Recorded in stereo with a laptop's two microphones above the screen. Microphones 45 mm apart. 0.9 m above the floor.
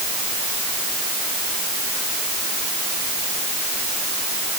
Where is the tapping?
No tapping in this recording.